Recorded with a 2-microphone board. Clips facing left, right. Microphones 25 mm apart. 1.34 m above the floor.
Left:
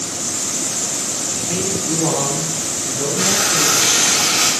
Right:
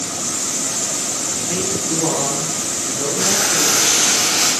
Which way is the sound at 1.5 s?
5° left (ahead or behind).